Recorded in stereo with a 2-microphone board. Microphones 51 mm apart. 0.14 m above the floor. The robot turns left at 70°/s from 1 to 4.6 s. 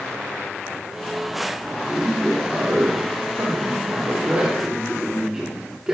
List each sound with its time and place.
1.9 s a man speaking: 20° left, 5.5 m; by 5.9 s 170° right, 5.5 m